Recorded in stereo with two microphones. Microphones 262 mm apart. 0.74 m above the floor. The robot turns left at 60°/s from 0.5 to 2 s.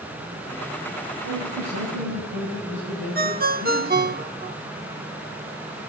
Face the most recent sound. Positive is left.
turn(degrees=-35)  # may be behind; listen again after turning